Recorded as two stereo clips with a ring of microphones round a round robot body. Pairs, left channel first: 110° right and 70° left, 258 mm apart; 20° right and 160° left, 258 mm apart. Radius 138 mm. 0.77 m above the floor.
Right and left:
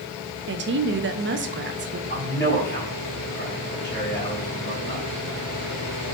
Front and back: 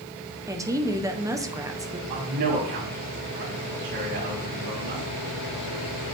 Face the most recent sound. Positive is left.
turn(degrees=175)